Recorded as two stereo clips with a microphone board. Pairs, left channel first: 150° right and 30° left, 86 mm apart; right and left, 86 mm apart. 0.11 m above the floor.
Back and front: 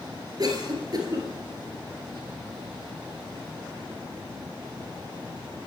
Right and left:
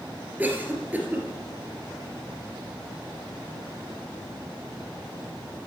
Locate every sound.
0.4 s a cough: 30° left, 2 m